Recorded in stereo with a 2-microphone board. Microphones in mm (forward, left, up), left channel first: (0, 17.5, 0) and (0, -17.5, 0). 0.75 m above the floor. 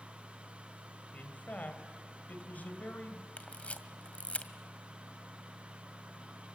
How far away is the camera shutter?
About 1.8 m.